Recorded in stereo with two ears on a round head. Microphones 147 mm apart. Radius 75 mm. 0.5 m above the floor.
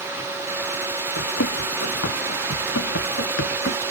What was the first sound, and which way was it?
Running footsteps, 85° left.